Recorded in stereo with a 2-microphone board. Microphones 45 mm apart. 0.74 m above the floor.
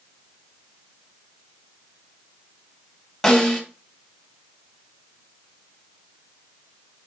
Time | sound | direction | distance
3.2 | a snare drum | 10° left (ahead or behind) | 1.5 m